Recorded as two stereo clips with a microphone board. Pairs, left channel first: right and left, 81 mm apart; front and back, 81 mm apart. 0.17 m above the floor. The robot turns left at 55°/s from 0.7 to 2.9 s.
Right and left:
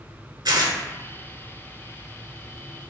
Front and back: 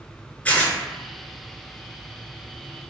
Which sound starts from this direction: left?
Tearing paper, at 0.5 s.